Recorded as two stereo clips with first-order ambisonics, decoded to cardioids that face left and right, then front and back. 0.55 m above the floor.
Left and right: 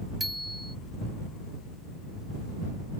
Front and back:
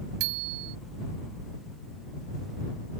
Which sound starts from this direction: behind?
A bicycle bell, at 0.2 s.